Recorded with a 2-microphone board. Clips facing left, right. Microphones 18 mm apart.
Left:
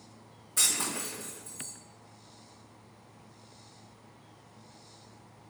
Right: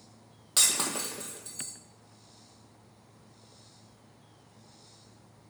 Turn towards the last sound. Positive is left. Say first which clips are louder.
# right 2 dB
turn(degrees=-65)  # may be behind; listen again after turning